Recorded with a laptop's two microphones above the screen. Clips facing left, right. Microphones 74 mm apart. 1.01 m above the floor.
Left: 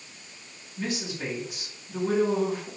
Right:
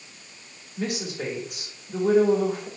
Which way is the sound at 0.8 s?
75° right (ahead or behind).